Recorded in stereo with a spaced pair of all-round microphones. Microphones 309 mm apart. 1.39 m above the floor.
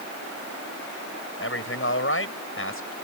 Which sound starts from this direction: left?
A man speaking, at 1.4 s.